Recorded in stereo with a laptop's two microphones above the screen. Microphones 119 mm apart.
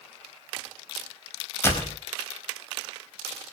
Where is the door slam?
20° left (ahead or behind), 4 m.